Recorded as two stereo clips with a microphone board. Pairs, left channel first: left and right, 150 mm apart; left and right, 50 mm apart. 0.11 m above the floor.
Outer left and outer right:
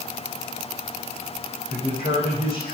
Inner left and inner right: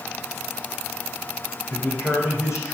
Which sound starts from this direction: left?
A man speaking, at 1.7 s.